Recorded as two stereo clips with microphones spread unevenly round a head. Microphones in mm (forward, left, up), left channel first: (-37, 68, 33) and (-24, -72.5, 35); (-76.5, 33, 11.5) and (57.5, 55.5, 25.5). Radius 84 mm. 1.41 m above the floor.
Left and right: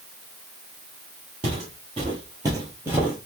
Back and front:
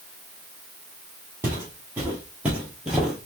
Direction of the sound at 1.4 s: 55° right.